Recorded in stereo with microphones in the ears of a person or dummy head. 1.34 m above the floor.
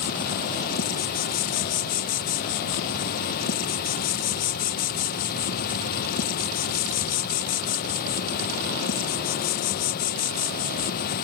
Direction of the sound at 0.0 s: 55° left (ahead or behind).